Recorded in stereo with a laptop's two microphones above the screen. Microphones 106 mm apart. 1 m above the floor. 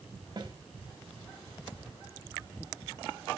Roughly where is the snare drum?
Right.